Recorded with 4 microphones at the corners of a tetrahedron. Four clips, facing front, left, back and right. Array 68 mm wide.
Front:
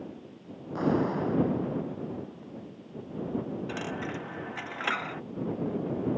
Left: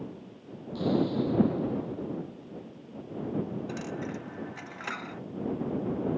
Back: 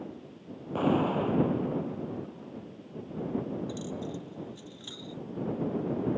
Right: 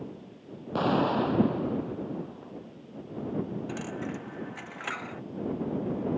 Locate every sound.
0.8 s an explosion: 100° right
3.7 s a dropped coin: 5° right